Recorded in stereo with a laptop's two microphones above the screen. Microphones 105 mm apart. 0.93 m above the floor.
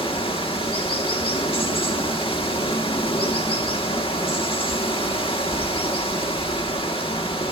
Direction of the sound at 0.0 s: 60° left (ahead or behind).